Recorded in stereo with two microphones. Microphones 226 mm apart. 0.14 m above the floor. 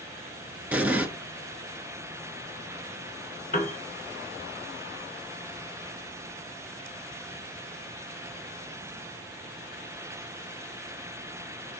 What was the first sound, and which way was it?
An explosion, 5° right (ahead or behind).